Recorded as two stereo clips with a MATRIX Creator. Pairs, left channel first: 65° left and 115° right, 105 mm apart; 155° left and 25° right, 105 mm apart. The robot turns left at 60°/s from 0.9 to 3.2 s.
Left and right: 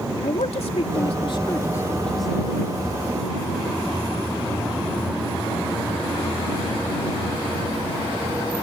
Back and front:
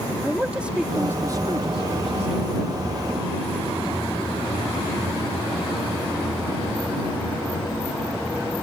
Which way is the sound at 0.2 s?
55° left.